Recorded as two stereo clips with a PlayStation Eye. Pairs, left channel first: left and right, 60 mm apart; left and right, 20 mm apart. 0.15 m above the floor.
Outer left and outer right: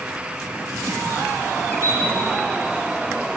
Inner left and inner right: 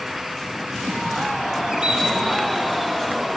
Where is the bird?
45° right (ahead or behind), 3.5 m.